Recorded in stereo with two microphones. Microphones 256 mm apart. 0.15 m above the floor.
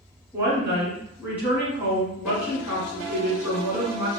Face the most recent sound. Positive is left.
turn(degrees=-5)  # may be behind; listen again after turning